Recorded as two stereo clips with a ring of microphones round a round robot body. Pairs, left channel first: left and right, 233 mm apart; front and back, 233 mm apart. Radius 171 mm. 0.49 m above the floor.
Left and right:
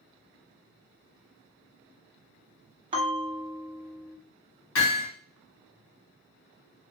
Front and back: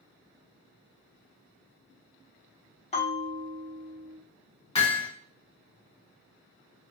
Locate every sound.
2.9 s a bell: 35° right, 1.1 m
4.8 s hammering: 65° left, 1.8 m